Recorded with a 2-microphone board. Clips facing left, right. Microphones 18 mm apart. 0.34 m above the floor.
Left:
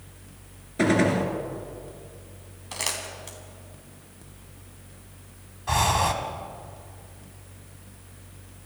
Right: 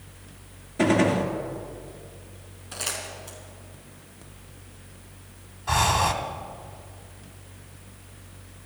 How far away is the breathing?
About 1.3 m.